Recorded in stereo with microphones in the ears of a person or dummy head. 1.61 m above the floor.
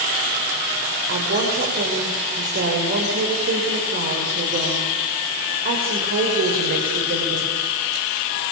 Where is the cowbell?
I don't hear a cowbell.